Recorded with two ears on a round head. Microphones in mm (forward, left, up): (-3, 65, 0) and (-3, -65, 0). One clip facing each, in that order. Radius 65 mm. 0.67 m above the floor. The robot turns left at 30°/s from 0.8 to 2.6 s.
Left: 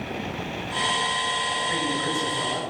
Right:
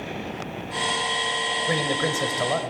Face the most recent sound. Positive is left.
turn(degrees=-75)  # may be behind; listen again after turning